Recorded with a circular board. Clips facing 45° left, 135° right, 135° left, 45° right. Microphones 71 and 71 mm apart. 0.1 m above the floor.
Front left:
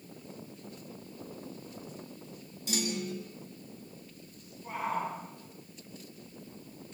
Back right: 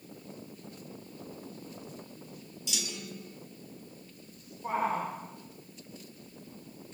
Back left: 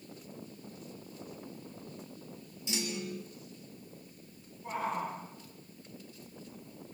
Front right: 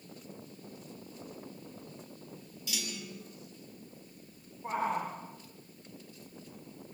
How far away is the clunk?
About 3 m.